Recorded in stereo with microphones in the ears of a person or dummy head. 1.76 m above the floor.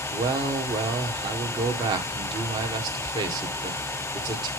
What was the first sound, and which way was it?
A man speaking, 25° right (ahead or behind).